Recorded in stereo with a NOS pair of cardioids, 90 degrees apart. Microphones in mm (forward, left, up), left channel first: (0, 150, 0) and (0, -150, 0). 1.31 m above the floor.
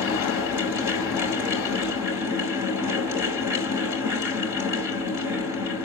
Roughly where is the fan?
Ahead left.